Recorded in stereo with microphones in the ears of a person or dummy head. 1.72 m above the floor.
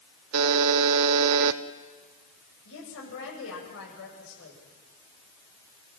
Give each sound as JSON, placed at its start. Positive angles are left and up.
{"t": 0.3, "sound": "a buzzer", "side_deg": -85, "distance_m": 1.2}
{"t": 2.6, "sound": "a woman speaking", "side_deg": 75, "distance_m": 8.0}